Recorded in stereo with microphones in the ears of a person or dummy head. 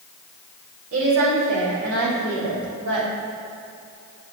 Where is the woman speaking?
85° right, 3.5 m; by 3.1 s 80° right, 4.5 m.